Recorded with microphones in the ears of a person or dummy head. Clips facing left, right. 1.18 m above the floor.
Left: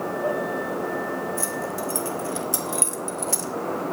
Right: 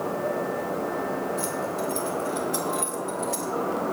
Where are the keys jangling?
50° left (ahead or behind), 3 m; by 3.5 s 60° left (ahead or behind), 1.4 m.